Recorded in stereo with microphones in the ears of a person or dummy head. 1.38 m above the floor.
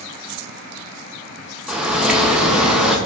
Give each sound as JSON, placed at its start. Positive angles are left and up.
{"t": 1.7, "sound": "a bird", "side_deg": 0, "distance_m": 0.5}